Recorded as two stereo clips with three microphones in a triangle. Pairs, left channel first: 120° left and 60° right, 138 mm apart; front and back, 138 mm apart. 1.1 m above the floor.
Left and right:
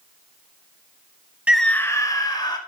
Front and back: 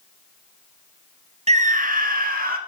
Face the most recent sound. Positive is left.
turn(degrees=180)